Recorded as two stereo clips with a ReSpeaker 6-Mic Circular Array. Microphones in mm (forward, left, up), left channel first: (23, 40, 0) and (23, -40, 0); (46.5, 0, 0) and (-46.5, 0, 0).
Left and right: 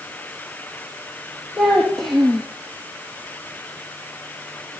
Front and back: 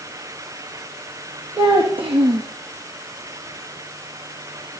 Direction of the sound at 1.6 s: 175° left.